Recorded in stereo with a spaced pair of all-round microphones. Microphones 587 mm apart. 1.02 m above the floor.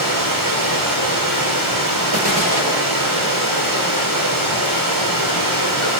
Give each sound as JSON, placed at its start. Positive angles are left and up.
{"t": 0.0, "sound": "running water", "side_deg": -35, "distance_m": 8.0}